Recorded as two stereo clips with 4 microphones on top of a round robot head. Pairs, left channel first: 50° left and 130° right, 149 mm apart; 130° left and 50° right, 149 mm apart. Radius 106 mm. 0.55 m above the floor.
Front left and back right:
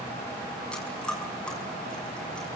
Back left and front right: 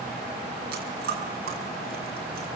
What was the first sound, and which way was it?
Chewing, 35° right.